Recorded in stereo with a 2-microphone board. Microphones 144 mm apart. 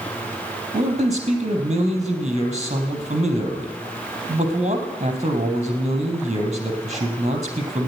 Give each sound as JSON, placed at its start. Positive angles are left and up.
{"t": 0.7, "sound": "a man speaking", "side_deg": -50, "distance_m": 3.5}